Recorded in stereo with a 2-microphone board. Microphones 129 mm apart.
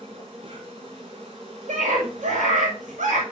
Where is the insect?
45° right (ahead or behind), 4 m.